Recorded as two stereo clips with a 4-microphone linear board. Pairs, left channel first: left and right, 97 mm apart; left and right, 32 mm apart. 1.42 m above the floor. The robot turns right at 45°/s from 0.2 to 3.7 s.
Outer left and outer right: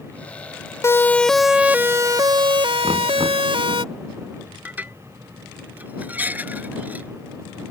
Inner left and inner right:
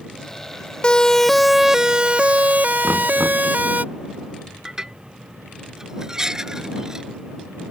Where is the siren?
30° left (ahead or behind); by 3.8 s 60° right (ahead or behind).